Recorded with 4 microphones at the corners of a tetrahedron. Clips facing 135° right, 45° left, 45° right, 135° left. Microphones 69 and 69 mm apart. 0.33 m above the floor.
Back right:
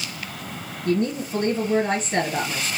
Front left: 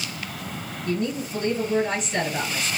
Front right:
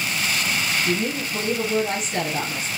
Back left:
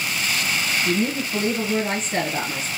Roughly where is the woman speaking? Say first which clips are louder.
Back right 4 dB, back left 2 dB; behind.